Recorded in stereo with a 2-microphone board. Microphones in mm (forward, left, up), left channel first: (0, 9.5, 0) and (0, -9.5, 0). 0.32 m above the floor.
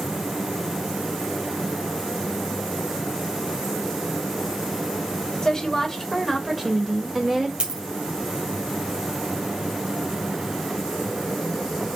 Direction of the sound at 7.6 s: 75° right (ahead or behind).